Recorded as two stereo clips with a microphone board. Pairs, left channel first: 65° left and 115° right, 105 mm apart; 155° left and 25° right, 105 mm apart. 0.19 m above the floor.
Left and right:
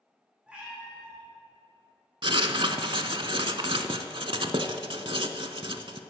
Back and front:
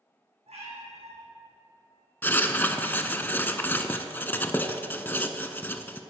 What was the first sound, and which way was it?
A cat meowing, 30° right.